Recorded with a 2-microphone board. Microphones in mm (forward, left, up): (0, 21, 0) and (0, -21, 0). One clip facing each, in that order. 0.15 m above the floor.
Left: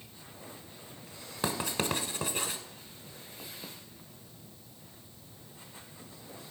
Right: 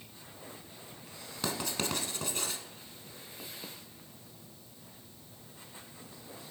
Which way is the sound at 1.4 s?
20° left (ahead or behind).